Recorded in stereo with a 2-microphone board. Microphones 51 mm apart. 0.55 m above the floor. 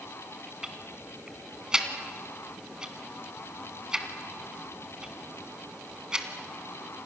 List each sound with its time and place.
0.6 s ticking: 10° right (ahead or behind), 2.5 m